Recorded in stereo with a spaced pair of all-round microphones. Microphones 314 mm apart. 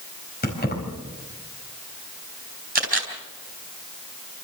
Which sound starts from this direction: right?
A camera shutter, at 2.8 s.